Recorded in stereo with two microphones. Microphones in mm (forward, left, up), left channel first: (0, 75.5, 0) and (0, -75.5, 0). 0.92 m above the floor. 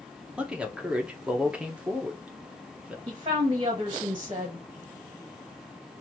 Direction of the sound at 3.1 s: 35° right (ahead or behind).